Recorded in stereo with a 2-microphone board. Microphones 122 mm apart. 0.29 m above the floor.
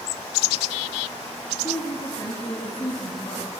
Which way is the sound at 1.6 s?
30° left (ahead or behind).